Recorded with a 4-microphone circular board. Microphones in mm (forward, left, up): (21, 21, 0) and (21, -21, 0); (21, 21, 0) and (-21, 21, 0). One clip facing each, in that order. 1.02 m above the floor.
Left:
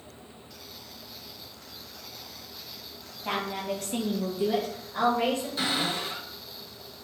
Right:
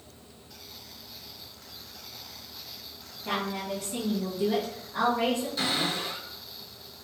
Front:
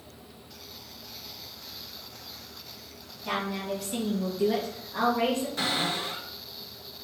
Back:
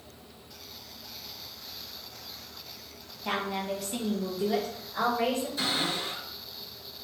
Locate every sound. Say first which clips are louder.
3.2 s a woman speaking: left 1 dB, even; 120° left, 1.1 m; by 5.5 s 10° right, 1.7 m
5.6 s a cupboard door: even, front 1 dB; 15° left, 1.5 m